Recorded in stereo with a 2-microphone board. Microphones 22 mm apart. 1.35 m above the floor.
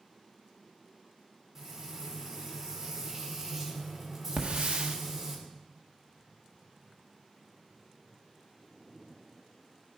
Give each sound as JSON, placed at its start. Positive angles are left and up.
{"t": 1.6, "sound": "frying", "side_deg": -25, "distance_m": 4.0}
{"t": 4.4, "sound": "a hiss", "side_deg": -80, "distance_m": 1.4}